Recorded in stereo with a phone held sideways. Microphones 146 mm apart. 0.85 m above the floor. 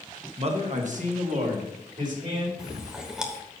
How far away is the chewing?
About 1.1 m.